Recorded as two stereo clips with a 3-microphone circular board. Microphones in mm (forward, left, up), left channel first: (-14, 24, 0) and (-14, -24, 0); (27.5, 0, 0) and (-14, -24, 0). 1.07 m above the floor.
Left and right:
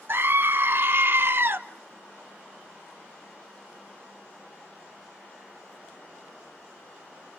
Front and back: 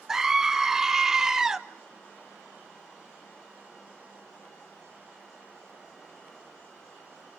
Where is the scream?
75° right, 1.1 m.